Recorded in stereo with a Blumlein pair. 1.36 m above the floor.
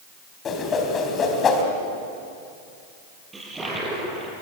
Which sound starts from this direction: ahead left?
A whoosh, at 0.5 s.